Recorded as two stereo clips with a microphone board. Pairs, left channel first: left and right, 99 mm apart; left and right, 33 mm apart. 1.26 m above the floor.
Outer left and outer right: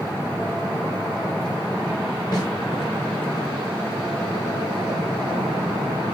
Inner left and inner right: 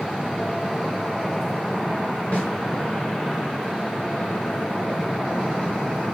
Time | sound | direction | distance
2.3 | a snare drum | 50° left (ahead or behind) | 3 m